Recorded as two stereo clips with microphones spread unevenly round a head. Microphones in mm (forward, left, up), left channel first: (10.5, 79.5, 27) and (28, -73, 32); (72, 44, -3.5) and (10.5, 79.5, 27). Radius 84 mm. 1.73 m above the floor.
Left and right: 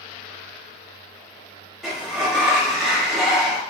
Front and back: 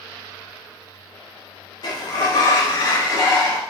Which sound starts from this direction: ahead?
A sliding door, at 1.8 s.